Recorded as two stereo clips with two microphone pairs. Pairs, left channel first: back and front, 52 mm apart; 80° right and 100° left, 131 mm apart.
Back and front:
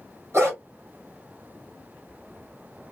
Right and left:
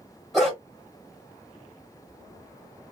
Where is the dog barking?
10° left, 1.6 m.